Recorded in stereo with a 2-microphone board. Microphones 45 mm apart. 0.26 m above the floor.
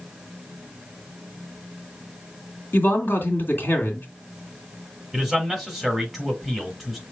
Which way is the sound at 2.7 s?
45° left (ahead or behind).